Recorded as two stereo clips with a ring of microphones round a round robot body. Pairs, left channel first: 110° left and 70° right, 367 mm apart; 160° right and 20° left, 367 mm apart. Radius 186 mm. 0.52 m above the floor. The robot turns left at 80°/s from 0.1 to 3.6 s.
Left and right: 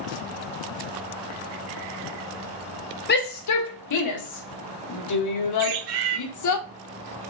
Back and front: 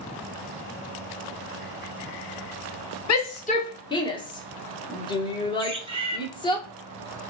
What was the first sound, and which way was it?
A shout, 170° left.